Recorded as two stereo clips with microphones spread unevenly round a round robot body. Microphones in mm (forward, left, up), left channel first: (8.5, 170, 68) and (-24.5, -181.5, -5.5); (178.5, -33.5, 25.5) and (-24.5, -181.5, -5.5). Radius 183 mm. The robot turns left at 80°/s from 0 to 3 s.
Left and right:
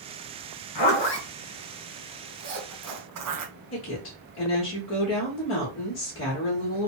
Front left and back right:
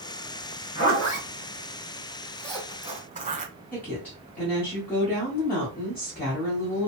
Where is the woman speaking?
125° left, 1.4 m.